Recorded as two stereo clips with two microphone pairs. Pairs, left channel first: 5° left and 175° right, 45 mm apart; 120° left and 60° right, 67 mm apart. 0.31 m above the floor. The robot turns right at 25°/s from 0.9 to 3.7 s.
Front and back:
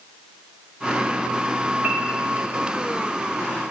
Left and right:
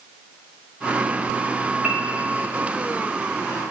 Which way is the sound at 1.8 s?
145° right.